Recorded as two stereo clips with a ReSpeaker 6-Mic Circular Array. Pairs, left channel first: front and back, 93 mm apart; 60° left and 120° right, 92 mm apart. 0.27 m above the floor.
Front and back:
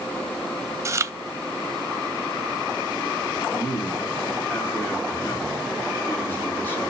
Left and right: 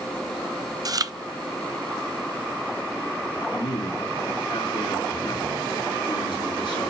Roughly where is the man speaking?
Ahead left.